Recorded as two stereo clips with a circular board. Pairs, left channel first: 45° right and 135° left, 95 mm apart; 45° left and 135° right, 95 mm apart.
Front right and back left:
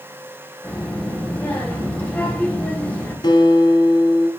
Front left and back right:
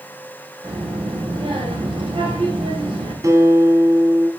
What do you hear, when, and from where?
0.6 s a child speaking: 120° right, 3 m
3.2 s a guitar: 80° right, 1.4 m